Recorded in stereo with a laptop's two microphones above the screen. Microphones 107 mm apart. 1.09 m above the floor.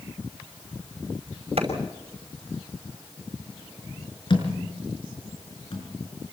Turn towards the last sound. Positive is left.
turn(degrees=50)  # may be behind; listen again after turning